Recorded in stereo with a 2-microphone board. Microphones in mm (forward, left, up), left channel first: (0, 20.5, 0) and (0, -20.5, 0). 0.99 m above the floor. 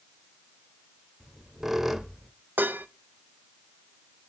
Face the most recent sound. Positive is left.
turn(degrees=-50)  # may be behind; listen again after turning